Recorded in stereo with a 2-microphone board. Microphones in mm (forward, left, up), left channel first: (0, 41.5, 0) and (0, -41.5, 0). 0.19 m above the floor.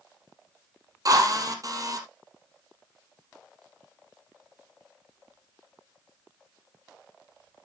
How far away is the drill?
About 3.5 m.